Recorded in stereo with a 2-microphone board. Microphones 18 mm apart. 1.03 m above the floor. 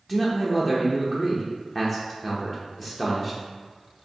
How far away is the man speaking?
About 0.6 m.